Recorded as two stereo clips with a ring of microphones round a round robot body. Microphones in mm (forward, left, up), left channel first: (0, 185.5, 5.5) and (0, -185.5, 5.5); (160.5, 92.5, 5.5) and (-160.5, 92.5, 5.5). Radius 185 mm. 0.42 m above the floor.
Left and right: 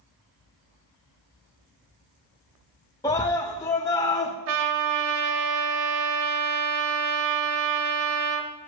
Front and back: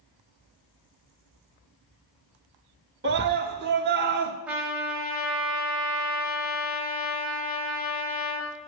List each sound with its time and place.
3.0 s a scream: 165° left, 0.8 m
4.5 s a trumpet: 95° right, 1.2 m